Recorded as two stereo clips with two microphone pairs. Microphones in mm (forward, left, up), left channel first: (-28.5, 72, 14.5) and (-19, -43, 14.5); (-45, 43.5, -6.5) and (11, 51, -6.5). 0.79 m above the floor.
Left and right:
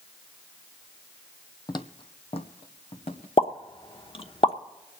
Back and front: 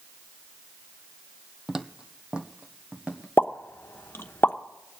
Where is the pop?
140° left, 1.0 m.